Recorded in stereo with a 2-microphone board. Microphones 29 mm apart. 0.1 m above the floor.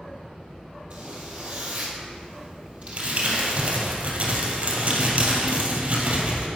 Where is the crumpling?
50° right (ahead or behind), 2 m.